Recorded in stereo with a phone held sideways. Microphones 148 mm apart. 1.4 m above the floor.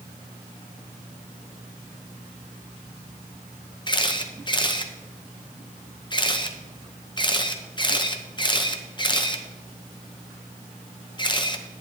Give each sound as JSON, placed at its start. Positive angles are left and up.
{"t": 3.9, "sound": "a camera shutter", "side_deg": 30, "distance_m": 0.8}